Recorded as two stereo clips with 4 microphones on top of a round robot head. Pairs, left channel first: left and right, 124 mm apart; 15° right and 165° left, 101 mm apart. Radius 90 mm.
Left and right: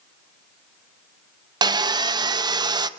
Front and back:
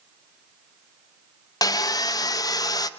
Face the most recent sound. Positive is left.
turn(degrees=-45)